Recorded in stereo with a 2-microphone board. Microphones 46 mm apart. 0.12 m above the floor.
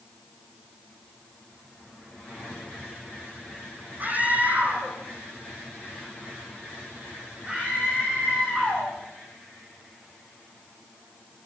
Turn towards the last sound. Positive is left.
turn(degrees=-25)  # may be behind; listen again after turning